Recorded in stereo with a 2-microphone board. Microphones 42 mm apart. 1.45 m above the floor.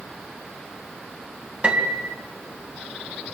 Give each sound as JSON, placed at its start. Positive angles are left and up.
{"t": 1.6, "sound": "a piano", "side_deg": -25, "distance_m": 3.0}